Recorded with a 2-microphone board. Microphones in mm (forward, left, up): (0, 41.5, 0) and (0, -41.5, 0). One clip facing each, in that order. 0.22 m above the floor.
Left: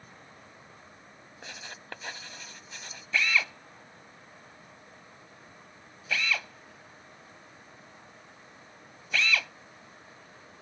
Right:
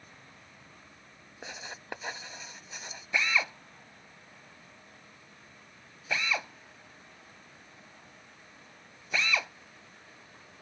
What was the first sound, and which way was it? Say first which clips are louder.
Writing: right 2 dB; 15° right (ahead or behind).